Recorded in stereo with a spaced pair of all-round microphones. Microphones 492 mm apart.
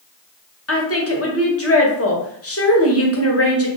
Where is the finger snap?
I don't hear a finger snap.